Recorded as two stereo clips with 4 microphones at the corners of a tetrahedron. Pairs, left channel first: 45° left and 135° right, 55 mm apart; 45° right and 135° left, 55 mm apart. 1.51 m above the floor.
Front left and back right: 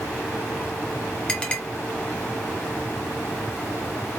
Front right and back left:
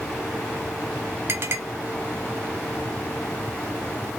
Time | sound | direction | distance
1.3 | a clink | 110° left | 1.4 m